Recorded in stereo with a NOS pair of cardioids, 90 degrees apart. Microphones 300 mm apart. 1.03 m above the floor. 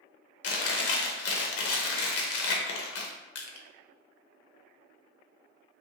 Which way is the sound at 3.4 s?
50° left.